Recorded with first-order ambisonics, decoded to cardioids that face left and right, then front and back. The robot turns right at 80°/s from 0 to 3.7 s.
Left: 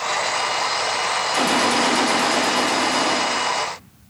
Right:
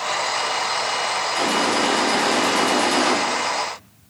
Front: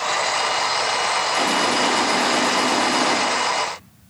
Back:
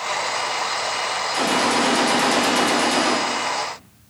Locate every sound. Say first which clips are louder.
1.3 s a gunshot: left 2 dB, back 3 dB; 95° left, 0.6 m; by 3.2 s 115° right, 0.6 m